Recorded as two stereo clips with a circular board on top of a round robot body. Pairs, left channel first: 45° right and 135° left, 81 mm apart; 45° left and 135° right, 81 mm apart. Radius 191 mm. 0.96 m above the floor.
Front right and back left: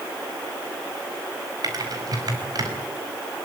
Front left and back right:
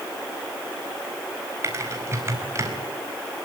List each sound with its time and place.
1.6 s typing on a keyboard: 170° left, 5 m